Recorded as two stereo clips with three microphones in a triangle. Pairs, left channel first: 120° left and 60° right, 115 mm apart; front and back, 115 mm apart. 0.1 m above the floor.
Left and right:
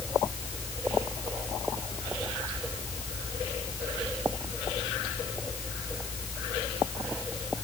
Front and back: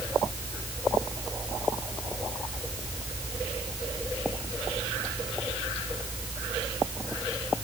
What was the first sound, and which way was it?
Only background noise.